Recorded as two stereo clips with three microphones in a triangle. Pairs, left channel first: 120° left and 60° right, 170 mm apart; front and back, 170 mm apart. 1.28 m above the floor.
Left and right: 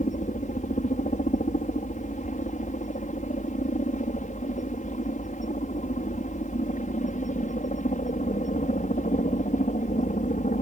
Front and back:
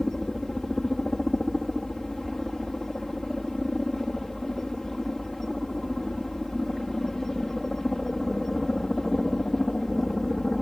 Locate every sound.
0.0 s a helicopter: 90° left